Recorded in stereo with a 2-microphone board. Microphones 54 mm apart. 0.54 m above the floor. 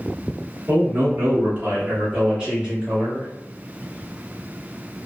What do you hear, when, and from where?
0.7 s a man speaking: 40° right (ahead or behind), 1.4 m; by 3.3 s 5° right (ahead or behind), 1.2 m